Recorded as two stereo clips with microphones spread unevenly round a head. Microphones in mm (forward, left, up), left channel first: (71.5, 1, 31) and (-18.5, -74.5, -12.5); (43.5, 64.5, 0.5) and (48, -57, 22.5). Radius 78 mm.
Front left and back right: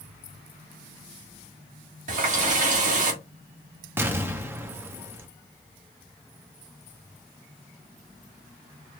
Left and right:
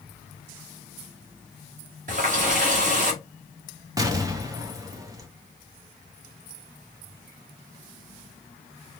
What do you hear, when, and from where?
2.1 s a running tap: 125° right, 1.5 m
4.0 s an explosion: 55° right, 0.7 m